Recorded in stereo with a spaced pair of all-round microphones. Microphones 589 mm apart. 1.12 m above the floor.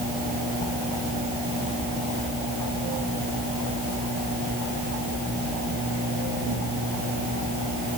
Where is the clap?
I don't hear a clap.